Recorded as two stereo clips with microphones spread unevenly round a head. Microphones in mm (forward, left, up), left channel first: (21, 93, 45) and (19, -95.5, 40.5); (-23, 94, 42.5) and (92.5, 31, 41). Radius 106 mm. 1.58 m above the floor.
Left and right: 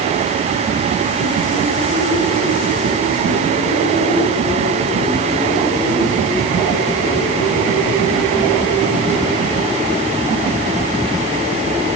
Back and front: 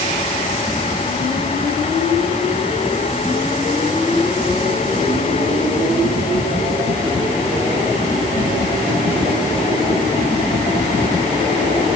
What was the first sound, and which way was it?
Only background noise.